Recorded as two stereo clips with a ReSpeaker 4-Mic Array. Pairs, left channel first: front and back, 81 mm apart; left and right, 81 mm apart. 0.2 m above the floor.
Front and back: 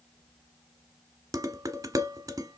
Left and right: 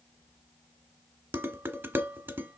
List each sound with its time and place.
1.3 s dishes clattering: 150° right, 1.5 m